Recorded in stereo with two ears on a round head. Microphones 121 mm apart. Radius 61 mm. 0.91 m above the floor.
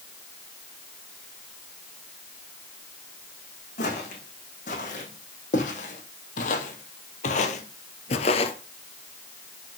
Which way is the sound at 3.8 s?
60° left (ahead or behind).